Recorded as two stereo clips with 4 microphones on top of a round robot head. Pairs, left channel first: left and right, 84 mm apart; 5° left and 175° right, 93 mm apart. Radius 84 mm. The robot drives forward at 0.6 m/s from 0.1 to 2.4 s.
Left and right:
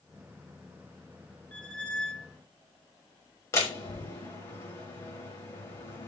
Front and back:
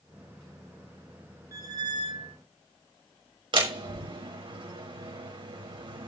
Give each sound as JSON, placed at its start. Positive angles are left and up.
{"t": 1.5, "sound": "a squeak", "azimuth_deg": 165, "distance_m": 0.6}
{"t": 3.5, "sound": "a door slam", "azimuth_deg": 155, "distance_m": 6.0}